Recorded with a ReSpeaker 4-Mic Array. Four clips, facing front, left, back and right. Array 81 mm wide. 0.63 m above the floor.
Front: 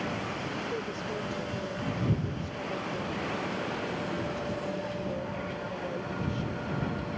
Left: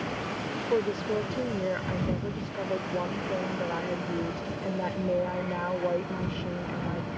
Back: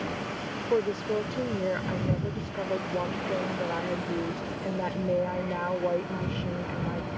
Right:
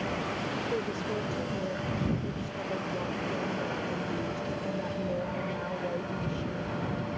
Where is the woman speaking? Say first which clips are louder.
Left 9 dB, back 8 dB; 140° left.